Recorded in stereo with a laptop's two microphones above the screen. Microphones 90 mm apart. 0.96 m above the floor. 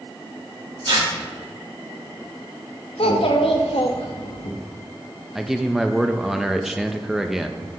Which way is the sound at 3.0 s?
75° left (ahead or behind).